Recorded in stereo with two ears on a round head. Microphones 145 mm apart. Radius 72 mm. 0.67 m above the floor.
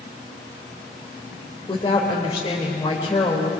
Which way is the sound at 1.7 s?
25° left (ahead or behind).